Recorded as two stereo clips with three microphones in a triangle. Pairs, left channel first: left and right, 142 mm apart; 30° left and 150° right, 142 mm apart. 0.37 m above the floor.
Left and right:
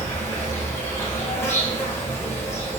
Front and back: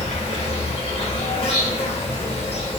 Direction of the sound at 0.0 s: 30° left.